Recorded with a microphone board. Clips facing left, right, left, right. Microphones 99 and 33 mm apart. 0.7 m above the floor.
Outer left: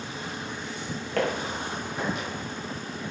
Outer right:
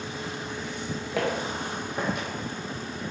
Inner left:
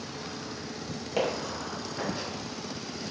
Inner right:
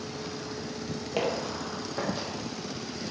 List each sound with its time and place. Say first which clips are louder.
1.2 s footsteps: outer left 1 dB, even; 5° right (ahead or behind), 0.8 m; by 2.3 s 50° right (ahead or behind), 1.4 m